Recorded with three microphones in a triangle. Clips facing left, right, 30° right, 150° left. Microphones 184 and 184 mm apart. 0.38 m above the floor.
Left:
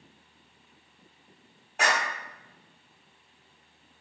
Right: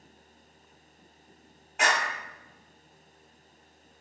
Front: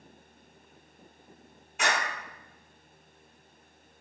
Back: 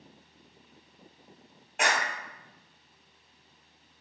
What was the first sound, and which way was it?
A clap, 140° left.